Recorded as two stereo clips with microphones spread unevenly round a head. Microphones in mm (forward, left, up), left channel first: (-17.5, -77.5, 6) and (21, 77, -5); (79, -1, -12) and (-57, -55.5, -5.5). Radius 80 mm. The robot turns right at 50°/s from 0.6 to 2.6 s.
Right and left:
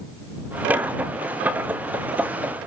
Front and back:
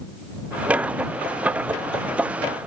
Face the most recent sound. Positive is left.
No sound to turn to.